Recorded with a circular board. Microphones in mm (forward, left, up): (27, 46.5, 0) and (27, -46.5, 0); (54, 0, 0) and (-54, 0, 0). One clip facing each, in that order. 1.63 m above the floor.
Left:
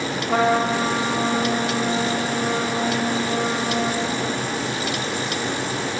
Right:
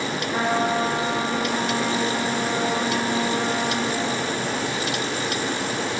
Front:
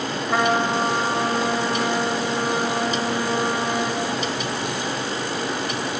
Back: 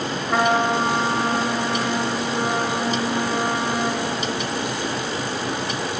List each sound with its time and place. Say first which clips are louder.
0.3 s a trumpet: left 4 dB, back 1 dB; 90° left, 4 m